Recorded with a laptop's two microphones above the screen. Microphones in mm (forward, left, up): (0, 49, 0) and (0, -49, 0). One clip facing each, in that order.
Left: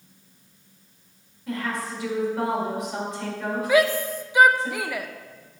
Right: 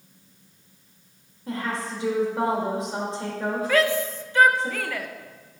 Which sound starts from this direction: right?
A woman speaking, at 1.5 s.